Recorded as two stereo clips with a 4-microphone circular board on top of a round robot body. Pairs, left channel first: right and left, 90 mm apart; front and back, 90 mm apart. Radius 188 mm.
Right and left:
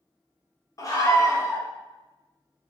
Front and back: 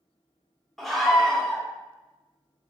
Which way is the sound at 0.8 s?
85° right.